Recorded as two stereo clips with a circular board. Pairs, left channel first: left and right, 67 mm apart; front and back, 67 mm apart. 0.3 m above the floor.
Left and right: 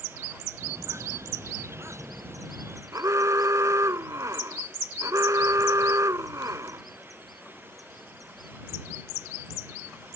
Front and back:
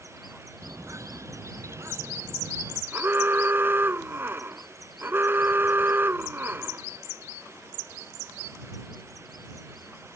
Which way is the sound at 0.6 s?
135° right.